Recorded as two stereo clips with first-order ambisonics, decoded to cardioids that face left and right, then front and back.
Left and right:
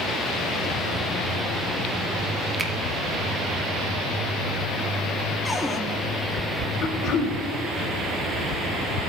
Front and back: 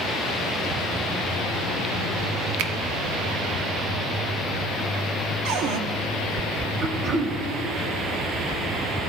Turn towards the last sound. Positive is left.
turn(degrees=120)